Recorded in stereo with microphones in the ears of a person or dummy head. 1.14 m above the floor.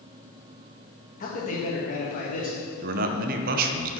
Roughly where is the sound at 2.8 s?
Right.